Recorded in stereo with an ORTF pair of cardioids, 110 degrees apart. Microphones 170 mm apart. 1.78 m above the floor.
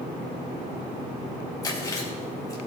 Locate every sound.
1.6 s chewing: 20° left, 3.5 m